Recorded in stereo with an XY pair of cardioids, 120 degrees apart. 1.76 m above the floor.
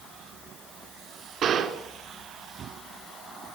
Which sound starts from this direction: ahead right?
A gunshot, at 1.4 s.